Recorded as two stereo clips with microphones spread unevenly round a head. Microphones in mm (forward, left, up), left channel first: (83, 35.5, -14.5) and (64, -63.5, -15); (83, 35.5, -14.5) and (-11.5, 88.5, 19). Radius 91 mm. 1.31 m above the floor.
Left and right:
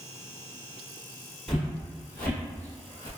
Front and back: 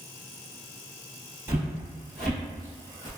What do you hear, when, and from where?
1.5 s footsteps: 155° left, 1.5 m; by 3.1 s 30° left, 1.5 m